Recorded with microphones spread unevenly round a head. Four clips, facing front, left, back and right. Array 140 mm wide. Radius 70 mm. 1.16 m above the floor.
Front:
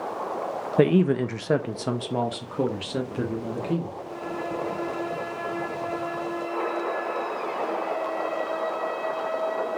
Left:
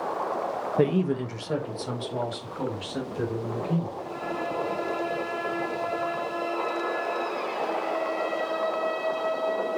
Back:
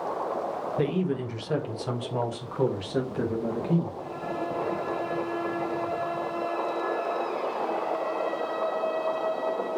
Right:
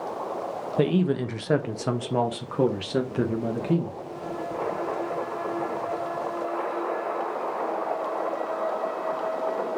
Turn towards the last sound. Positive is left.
turn(degrees=-75)